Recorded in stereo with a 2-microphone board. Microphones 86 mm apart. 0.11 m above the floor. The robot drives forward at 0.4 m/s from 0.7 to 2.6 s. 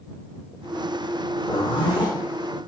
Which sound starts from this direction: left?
A zipper, at 1.5 s.